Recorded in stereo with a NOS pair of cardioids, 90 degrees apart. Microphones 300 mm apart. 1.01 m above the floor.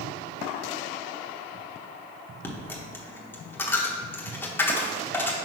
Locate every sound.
2.4 s a dropped coin: 10° left, 1.2 m